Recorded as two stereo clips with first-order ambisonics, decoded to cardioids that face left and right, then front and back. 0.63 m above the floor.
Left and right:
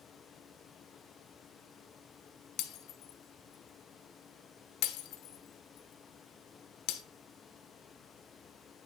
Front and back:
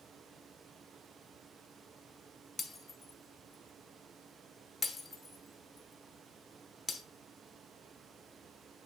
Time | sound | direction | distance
2.6 | breaking glass | 75° left | 0.8 m